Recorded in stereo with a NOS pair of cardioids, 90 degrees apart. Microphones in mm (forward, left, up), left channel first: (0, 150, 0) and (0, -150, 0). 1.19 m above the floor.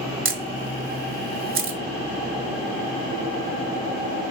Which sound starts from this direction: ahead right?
A camera shutter, at 0.2 s.